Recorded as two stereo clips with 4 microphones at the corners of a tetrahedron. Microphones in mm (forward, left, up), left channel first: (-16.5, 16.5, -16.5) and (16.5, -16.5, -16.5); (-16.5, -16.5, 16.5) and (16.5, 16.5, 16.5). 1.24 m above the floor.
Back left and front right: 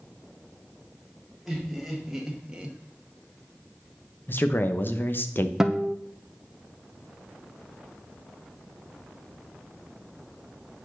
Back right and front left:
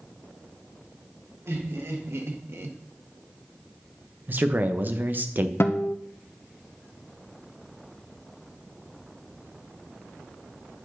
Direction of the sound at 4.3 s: 90° left.